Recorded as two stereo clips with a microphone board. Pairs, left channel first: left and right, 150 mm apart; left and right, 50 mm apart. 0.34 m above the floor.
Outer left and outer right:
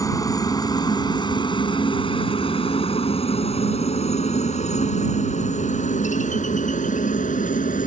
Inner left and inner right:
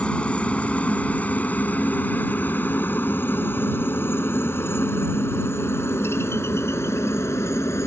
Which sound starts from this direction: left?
A helicopter, at 0.0 s.